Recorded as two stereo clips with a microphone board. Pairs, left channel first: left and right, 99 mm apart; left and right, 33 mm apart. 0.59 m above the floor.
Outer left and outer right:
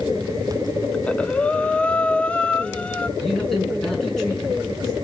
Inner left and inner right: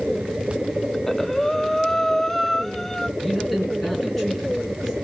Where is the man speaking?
5° left (ahead or behind), 6 m.